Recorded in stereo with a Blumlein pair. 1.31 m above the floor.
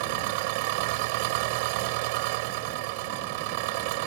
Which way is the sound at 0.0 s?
45° right.